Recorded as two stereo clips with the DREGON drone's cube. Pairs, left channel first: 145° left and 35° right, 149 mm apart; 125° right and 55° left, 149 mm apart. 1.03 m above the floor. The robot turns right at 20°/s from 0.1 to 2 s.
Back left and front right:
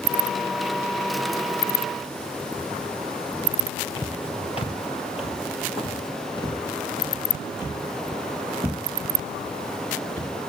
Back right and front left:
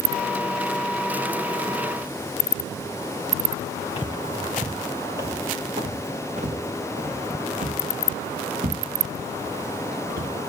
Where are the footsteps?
165° right, 1.4 m; by 10.3 s 75° left, 6 m.